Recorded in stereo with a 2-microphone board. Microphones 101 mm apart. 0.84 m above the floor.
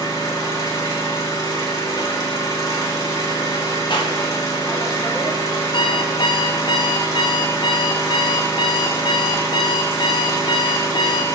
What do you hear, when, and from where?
0.0 s an engine running: 35° left (ahead or behind), 1.2 m
3.9 s a clap: 50° left (ahead or behind), 1.0 m
5.7 s an alarm clock: 45° left (ahead or behind), 0.6 m